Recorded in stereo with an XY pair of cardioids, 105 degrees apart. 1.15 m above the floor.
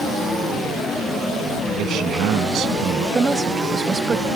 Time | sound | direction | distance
1.8 | a man speaking | 70° right | ?
3.1 | a woman speaking | 30° right | ?